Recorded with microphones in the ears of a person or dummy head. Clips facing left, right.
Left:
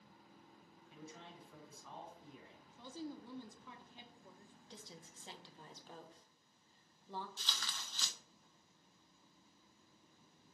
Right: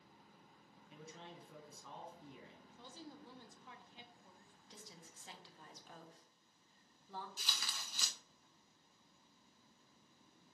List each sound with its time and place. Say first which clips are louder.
0.9 s a man speaking: even; 60° right (ahead or behind), 4 m
2.7 s a woman speaking: left 8 dB; 70° left (ahead or behind), 1.3 m
4.7 s a woman speaking: left 2 dB; 25° left (ahead or behind), 1.5 m
7.4 s tearing paper: left 1 dB; 15° right (ahead or behind), 0.8 m